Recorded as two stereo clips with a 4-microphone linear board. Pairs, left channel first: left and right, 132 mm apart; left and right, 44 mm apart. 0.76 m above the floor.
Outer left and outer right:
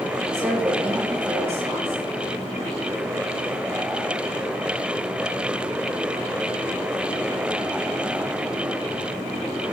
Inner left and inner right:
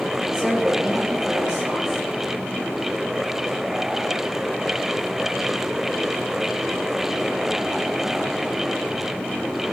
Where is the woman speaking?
20° right (ahead or behind), 7 m.